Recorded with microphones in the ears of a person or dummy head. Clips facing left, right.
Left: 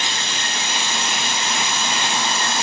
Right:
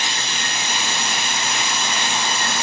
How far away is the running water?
About 2.5 m.